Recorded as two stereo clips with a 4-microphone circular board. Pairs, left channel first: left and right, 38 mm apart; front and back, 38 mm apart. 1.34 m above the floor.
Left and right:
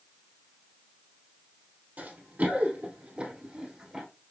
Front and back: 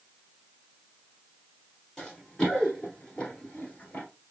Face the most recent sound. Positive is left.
turn(degrees=-25)